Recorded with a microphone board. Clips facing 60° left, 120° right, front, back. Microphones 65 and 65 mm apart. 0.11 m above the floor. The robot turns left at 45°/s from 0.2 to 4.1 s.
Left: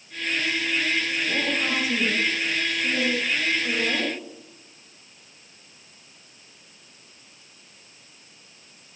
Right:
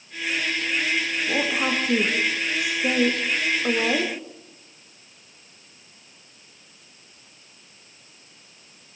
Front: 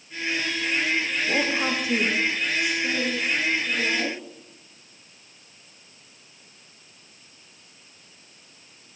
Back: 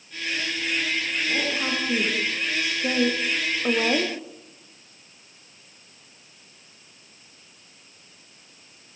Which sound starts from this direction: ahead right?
A woman speaking, at 1.3 s.